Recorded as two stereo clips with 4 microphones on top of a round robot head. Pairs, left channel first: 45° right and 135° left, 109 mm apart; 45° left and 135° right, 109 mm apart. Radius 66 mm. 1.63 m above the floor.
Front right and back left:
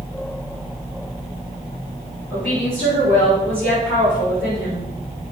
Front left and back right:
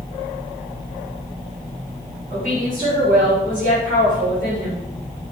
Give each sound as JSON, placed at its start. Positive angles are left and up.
{"t": 2.3, "sound": "a woman speaking", "azimuth_deg": -125, "distance_m": 6.5}